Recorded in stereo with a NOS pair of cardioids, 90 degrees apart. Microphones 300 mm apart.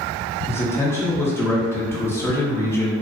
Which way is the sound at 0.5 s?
10° left.